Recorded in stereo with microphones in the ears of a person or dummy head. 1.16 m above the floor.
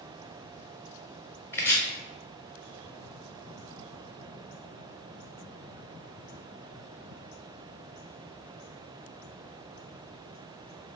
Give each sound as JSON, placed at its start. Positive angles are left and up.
{"t": 1.5, "sound": "chopping", "side_deg": 10, "distance_m": 0.7}